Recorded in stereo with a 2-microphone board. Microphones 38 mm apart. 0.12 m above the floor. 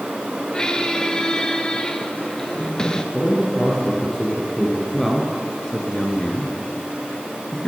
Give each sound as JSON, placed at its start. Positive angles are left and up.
{"t": 0.5, "sound": "a squeak", "side_deg": 25, "distance_m": 0.8}
{"t": 3.1, "sound": "a man speaking", "side_deg": 5, "distance_m": 2.5}
{"t": 4.9, "sound": "a man speaking", "side_deg": 15, "distance_m": 1.5}